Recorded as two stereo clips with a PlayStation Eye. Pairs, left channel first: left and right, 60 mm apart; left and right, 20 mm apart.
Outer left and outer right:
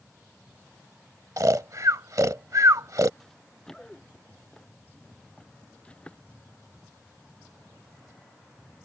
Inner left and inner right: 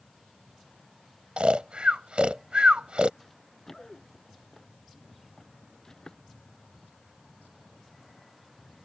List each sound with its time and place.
1.4 s snoring: 65° right (ahead or behind)
3.2 s running footsteps: 10° left (ahead or behind); by 6.3 s 20° left (ahead or behind)